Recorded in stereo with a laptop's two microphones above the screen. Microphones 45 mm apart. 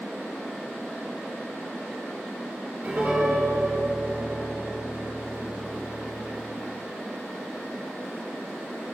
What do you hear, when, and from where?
2.8 s a piano: 45° right (ahead or behind), 4 m